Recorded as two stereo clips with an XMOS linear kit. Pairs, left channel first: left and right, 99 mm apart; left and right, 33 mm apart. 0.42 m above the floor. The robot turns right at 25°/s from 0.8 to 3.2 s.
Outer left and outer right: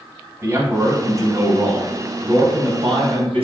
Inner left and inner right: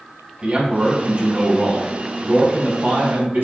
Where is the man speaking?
150° right, 4 m; by 3.4 s 90° right, 4 m.